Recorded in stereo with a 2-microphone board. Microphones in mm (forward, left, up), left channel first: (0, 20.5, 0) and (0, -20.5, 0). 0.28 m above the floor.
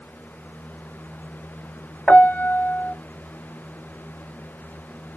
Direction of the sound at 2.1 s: 40° left (ahead or behind).